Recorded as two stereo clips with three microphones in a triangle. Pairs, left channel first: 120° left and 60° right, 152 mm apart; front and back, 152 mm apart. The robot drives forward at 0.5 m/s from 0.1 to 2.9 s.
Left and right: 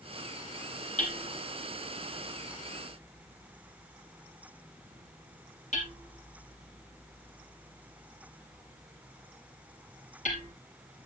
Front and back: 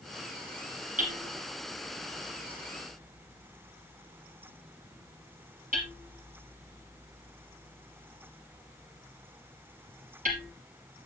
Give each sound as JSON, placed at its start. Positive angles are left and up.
{"t": 1.0, "sound": "hammering", "azimuth_deg": 150, "distance_m": 4.0}